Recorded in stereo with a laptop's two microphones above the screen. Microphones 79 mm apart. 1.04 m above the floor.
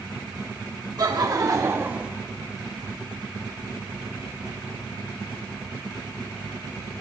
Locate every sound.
1.0 s laughter: 55° right (ahead or behind), 1.5 m; by 2.1 s 10° right (ahead or behind), 0.7 m